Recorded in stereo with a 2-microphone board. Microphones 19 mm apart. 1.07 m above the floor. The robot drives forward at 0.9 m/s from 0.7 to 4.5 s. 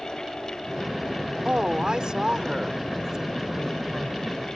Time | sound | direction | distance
1.4 | a woman speaking | 50° right (ahead or behind) | ?